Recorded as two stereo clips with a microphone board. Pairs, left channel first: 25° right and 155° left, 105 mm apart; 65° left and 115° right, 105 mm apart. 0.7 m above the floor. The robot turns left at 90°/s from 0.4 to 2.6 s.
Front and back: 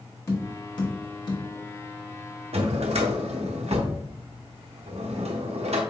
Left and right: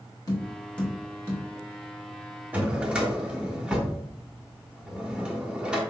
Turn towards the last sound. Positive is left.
turn(degrees=165)